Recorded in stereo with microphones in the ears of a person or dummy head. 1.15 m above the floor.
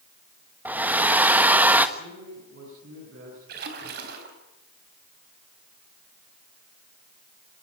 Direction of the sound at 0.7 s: 10° right (ahead or behind).